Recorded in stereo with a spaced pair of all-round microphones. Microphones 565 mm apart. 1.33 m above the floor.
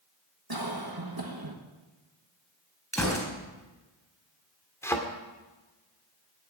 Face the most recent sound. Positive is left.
turn(degrees=5)  # may be behind; listen again after turning